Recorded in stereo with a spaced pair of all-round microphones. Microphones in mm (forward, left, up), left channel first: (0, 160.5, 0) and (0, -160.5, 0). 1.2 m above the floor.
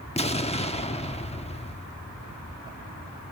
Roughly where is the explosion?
Centre.